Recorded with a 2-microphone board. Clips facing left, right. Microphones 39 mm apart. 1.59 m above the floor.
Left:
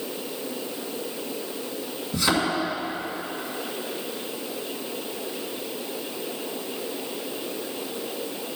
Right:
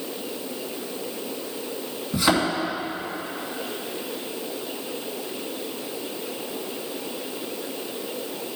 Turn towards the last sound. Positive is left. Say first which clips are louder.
# right 2 dB
turn(degrees=-25)  # may be behind; listen again after turning